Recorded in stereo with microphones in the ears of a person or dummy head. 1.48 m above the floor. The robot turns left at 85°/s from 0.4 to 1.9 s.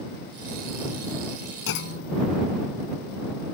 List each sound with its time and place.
1.7 s a clunk: 70° left (ahead or behind); by 2.3 s 75° left (ahead or behind)